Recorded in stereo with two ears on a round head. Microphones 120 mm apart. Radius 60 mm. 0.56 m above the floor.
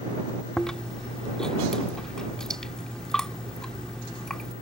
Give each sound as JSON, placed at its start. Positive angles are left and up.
{"t": 0.6, "sound": "chewing", "side_deg": 5}